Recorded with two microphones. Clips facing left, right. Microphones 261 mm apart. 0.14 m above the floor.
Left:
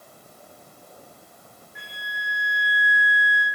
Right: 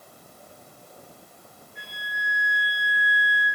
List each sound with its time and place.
1.8 s a flute: 85° left, 2.5 m